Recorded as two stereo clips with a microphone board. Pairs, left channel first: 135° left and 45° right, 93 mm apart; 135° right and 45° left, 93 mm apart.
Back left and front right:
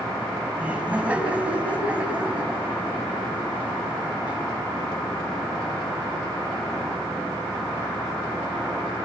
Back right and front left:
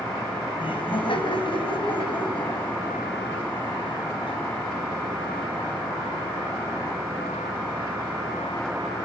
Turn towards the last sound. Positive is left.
turn(degrees=-120)